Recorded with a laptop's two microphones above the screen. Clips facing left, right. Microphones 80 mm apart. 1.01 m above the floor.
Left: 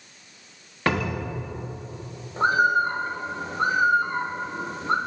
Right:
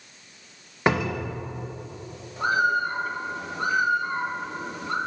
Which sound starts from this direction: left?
A bird, at 2.4 s.